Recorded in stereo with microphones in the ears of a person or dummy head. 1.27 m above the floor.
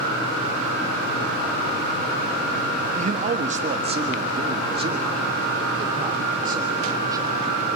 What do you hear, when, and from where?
3.0 s a man speaking: 45° right (ahead or behind), 1.4 m; by 7.4 s 25° right (ahead or behind), 4 m